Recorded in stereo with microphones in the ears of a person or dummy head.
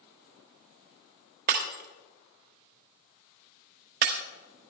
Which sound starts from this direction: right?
Breaking glass, at 1.5 s.